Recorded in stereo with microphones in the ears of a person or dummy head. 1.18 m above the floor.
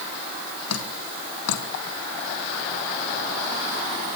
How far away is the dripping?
About 2.5 m.